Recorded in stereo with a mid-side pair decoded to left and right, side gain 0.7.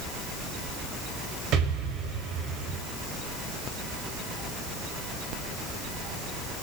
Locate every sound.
1.5 s an explosion: 55° right, 5 m